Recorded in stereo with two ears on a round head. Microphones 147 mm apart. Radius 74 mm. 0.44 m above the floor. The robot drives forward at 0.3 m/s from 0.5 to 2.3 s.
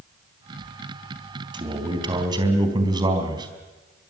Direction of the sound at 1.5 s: 25° right (ahead or behind).